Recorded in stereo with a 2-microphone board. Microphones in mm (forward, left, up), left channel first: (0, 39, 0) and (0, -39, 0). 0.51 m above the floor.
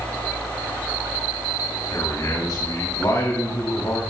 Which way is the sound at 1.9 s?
50° left (ahead or behind).